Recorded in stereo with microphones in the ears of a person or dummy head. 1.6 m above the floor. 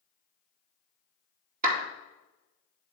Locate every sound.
1.6 s a clap: 50° right (ahead or behind), 2 m